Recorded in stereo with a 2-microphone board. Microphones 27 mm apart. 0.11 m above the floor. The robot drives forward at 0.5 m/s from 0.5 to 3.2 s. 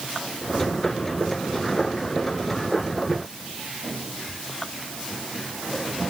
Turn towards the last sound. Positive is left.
No sound to turn to.